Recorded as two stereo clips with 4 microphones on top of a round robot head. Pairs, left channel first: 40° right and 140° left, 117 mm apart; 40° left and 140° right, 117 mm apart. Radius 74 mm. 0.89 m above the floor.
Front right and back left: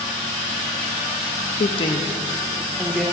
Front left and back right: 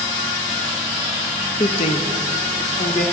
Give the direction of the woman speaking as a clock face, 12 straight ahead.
1 o'clock.